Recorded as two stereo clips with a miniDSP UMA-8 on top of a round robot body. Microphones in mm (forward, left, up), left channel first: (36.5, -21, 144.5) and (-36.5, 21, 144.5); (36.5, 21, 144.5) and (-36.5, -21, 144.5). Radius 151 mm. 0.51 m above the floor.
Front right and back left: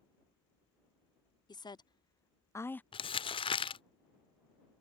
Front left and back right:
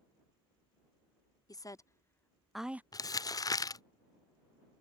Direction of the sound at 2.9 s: 15° right.